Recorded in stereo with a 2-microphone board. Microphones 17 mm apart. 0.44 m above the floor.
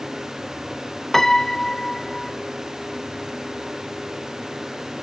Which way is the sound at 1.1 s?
20° left (ahead or behind).